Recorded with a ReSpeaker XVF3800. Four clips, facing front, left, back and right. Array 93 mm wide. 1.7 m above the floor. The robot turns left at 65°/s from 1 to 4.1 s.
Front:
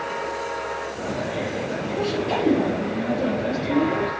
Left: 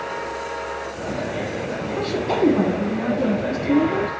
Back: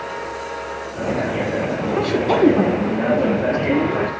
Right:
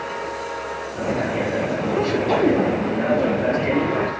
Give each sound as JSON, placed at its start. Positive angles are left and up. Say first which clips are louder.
{"t": 1.9, "sound": "a woman speaking", "louder": "right 2 dB, back 7 dB", "azimuth_deg": -155, "distance_m": 1.7}